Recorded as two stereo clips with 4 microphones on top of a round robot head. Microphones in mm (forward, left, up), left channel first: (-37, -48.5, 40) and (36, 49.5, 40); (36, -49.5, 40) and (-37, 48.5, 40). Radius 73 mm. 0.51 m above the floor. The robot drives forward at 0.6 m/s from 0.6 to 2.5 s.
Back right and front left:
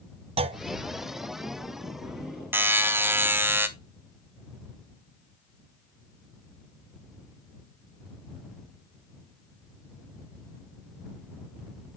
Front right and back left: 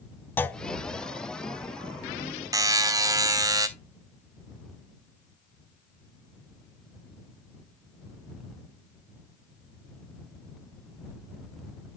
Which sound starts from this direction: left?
A buzzer, at 2.5 s.